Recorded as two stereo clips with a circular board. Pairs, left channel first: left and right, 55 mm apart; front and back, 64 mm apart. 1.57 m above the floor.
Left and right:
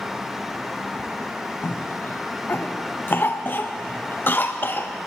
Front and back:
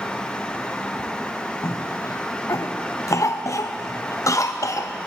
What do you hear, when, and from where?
1.6 s a cough: 35° left, 0.5 m